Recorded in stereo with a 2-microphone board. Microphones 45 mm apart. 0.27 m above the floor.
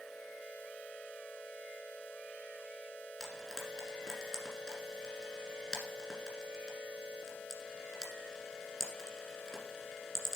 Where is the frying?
15° left (ahead or behind), 1.6 m.